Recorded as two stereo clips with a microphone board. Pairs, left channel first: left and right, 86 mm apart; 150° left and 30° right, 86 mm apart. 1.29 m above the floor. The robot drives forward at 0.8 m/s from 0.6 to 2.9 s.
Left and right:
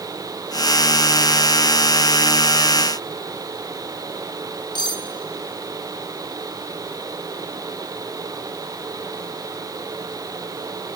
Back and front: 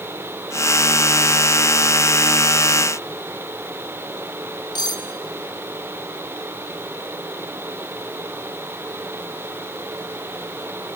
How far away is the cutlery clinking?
About 1.6 m.